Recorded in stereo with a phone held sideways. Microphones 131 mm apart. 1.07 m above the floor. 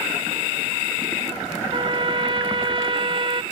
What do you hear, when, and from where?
1.7 s a trumpet: 40° right (ahead or behind)